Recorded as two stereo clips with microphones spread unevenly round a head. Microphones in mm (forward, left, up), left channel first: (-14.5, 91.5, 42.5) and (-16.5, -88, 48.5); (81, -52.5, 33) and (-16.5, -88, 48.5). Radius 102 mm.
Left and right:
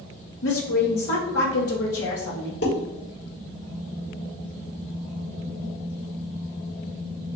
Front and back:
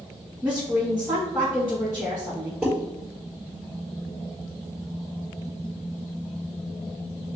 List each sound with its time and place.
0.4 s a woman speaking: 110° left, 1.1 m
2.6 s dishes clattering: 120° left, 1.6 m